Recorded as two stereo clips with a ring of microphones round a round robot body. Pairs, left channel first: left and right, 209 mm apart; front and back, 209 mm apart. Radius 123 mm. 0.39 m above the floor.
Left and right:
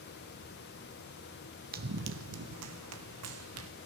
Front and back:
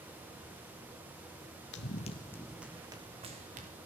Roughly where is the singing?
No singing in this recording.